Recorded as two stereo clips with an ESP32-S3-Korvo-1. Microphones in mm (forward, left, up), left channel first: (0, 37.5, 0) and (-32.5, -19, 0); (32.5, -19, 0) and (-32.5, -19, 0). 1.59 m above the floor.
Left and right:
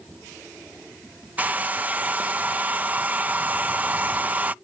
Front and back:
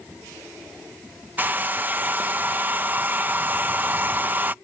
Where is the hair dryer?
155° right.